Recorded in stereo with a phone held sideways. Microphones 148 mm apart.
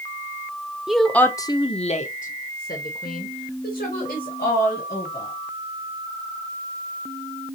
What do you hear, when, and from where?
0.9 s a woman speaking: 5° right (ahead or behind), 0.8 m; by 5.3 s 85° left, 2.5 m